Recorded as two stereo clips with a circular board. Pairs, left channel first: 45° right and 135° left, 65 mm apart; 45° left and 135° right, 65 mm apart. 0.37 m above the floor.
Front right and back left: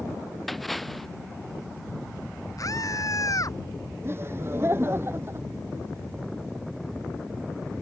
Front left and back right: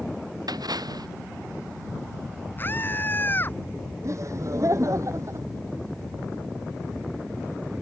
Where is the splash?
135° right.